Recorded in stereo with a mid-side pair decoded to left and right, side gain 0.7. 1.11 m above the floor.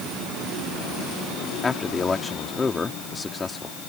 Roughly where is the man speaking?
Ahead.